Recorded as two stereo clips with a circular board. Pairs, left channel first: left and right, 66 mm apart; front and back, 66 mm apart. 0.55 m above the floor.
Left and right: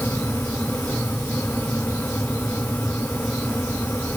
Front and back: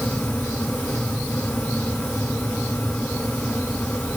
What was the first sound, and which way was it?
Only background noise.